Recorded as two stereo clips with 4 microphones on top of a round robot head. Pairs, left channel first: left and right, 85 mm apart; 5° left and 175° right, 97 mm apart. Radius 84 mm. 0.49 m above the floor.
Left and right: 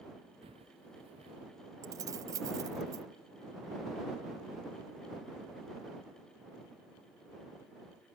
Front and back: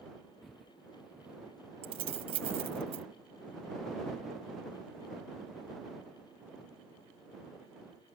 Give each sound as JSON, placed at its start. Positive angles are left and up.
{"t": 0.4, "sound": "footsteps", "azimuth_deg": -80}
{"t": 1.8, "sound": "keys jangling", "azimuth_deg": -145}